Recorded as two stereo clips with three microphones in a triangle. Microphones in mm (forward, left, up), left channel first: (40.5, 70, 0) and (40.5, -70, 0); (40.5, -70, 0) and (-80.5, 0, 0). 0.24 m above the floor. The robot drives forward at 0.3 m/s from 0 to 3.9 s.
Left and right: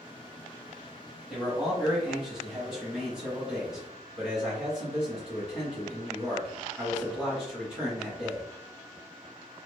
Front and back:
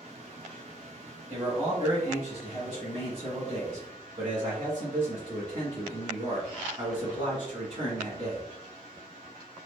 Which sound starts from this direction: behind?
A man speaking, at 1.3 s.